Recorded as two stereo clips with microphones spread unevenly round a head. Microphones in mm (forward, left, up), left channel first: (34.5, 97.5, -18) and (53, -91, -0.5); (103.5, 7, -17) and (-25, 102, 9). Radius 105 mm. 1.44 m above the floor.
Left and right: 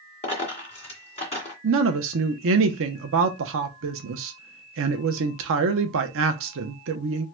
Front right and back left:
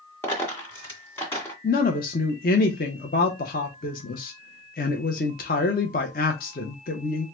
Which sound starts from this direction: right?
A woman speaking, at 1.6 s.